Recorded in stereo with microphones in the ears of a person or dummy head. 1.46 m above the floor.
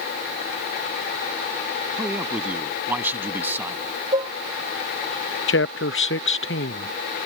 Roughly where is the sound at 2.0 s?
Centre.